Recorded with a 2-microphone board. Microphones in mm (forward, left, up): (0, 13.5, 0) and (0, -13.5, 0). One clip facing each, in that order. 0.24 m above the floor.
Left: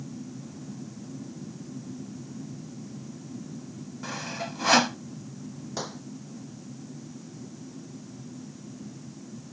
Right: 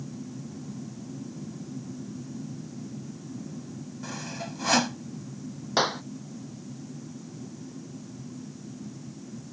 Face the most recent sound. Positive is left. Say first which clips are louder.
# right 12 dB
turn(degrees=-45)  # may be behind; listen again after turning